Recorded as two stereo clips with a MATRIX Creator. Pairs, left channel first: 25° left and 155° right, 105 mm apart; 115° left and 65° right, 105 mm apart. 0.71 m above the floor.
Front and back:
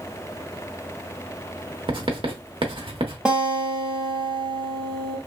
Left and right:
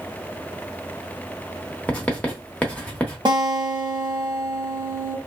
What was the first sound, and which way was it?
Writing, 170° right.